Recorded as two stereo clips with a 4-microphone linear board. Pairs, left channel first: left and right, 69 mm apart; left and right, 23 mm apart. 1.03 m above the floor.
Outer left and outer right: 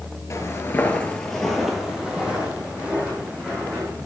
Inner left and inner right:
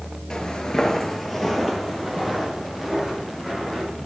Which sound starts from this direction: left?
Footsteps, at 0.3 s.